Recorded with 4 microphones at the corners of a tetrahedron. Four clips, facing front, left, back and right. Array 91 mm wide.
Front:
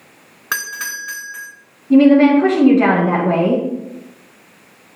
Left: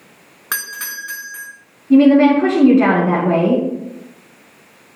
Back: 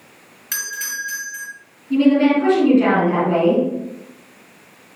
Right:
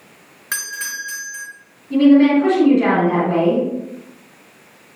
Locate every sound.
0.5 s a doorbell: 30° left, 4.5 m
1.9 s a woman speaking: 55° left, 4 m